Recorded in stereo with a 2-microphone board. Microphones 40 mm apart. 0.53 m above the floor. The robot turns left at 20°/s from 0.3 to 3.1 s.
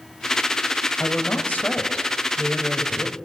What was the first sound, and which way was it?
A woman speaking, 60° left.